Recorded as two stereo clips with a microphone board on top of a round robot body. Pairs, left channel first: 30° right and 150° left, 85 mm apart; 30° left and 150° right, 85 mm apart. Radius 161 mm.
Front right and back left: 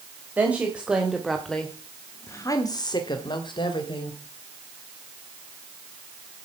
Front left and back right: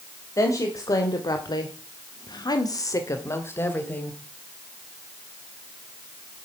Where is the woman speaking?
80° left, 2.5 m; by 4.2 s 40° right, 3 m.